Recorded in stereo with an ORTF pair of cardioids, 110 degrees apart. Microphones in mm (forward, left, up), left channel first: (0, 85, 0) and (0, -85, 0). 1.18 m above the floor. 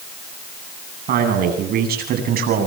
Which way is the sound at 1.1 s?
65° right.